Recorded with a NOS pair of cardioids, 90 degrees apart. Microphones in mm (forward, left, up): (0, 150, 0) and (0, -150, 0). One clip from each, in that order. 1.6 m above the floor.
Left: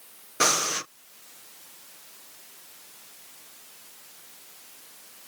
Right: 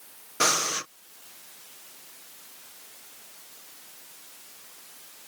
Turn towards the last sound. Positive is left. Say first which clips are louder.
# left 1 dB
turn(degrees=10)